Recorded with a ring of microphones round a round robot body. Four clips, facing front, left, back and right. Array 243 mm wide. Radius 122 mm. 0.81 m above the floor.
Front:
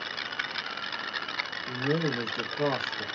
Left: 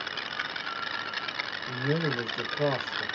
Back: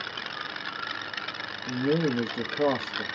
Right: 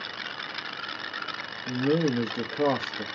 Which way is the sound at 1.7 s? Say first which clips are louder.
Right 5 dB, back 4 dB; 125° right.